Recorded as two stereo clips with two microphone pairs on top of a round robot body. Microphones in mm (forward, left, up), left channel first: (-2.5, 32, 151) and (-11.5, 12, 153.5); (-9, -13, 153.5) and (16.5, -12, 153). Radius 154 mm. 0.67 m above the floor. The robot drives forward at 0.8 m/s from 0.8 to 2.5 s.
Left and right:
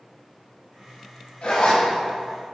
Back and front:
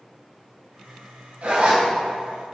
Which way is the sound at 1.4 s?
25° left.